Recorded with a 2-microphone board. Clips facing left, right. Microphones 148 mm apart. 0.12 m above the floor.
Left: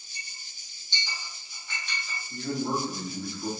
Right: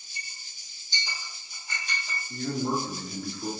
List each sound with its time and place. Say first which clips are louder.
0.1 s a clink: right 2 dB; 45° right (ahead or behind), 3.5 m
2.3 s a man speaking: right 1 dB; 35° right (ahead or behind), 3.5 m